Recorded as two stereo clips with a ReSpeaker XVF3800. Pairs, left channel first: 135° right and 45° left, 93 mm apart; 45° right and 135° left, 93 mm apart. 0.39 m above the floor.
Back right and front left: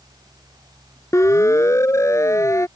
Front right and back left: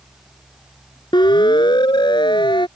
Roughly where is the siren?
Right.